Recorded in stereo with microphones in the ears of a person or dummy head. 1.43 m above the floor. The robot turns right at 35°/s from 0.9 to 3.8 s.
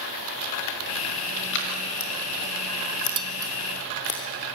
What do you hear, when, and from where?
1.5 s scissors: 60° left (ahead or behind), 3.5 m; by 4.2 s 40° left (ahead or behind), 3.5 m
3.2 s dishes clattering: 30° right (ahead or behind), 0.9 m; by 3.5 s 20° right (ahead or behind), 0.9 m